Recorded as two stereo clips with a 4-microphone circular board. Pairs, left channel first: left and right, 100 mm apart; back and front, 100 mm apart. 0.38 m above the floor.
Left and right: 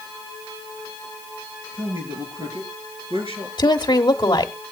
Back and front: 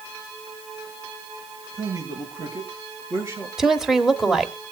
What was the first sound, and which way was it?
A man speaking, 55° right.